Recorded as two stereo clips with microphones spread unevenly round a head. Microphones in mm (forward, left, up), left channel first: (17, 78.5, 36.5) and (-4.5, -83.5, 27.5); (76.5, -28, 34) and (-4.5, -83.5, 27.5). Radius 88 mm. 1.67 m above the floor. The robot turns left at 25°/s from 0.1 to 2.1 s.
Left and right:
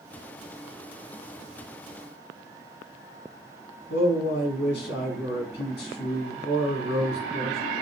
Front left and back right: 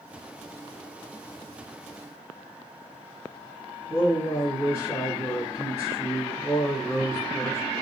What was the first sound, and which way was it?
A man speaking, 105° left.